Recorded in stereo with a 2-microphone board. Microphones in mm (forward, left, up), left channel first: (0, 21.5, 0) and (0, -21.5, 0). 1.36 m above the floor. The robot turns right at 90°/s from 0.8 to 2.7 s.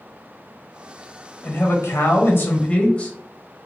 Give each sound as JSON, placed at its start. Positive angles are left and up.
{"t": 1.4, "sound": "a man speaking", "azimuth_deg": 40, "distance_m": 0.7}